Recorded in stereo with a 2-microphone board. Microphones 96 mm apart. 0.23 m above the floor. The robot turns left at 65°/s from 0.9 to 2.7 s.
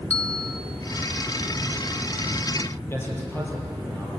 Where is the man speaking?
25° left (ahead or behind), 6.5 m.